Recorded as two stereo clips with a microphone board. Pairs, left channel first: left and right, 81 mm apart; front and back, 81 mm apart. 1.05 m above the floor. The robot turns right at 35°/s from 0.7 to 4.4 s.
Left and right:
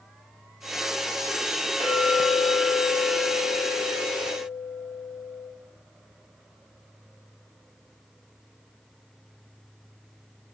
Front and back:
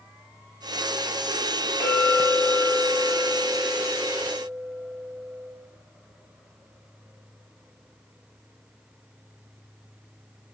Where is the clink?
90° right, 0.9 m; by 5.5 s straight ahead, 0.9 m.